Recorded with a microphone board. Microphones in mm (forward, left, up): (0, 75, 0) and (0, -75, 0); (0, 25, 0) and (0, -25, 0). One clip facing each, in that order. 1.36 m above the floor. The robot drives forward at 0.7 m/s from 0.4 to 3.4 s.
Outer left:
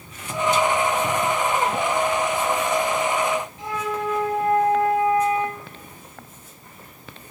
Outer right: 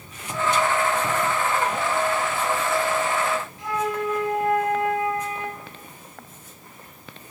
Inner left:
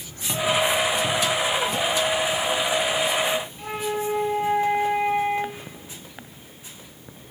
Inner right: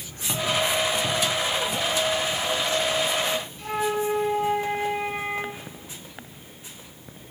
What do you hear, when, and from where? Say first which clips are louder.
3.6 s a flute: outer right 1 dB, inner right 2 dB; 25° left (ahead or behind), 7 m